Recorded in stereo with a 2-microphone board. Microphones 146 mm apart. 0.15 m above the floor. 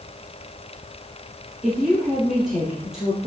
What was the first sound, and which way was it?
A woman speaking, 5° right (ahead or behind).